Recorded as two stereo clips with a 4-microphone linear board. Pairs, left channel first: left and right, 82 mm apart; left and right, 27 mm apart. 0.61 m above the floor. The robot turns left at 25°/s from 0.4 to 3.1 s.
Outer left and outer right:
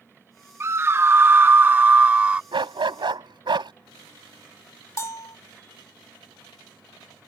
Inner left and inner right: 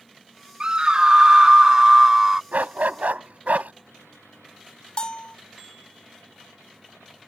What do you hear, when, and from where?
0.6 s a scream: 105° right; by 2.4 s 150° right
2.5 s a dog barking: 85° right; by 3.7 s 75° right (ahead or behind)
5.0 s a bell: 35° left (ahead or behind)